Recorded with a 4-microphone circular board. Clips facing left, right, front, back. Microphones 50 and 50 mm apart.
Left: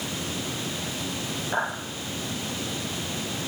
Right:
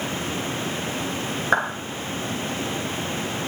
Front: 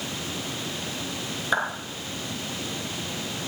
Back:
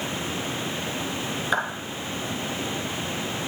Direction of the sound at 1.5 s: 90° right.